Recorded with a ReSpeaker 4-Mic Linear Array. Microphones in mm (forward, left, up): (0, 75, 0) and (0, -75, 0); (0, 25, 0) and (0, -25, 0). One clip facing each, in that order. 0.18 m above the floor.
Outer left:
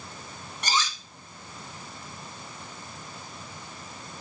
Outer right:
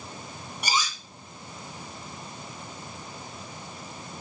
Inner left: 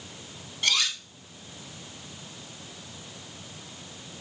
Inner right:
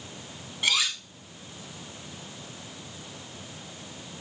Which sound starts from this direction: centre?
Cutlery clinking, at 0.6 s.